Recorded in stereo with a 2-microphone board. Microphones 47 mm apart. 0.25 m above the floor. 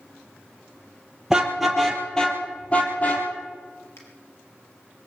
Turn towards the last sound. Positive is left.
turn(degrees=65)  # may be behind; listen again after turning